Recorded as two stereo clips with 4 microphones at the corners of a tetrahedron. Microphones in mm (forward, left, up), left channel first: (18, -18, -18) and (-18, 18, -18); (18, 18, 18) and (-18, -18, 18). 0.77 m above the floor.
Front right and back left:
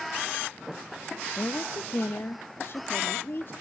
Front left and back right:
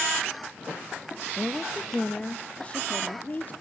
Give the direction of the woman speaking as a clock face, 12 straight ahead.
2 o'clock.